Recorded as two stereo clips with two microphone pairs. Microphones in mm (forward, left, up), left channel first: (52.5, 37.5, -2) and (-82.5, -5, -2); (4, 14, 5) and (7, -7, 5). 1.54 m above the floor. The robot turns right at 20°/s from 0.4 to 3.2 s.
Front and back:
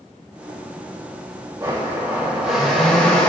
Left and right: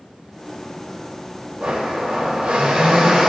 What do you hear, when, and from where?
1.6 s a blender: 95° right, 1.8 m; by 3.3 s 60° right, 1.8 m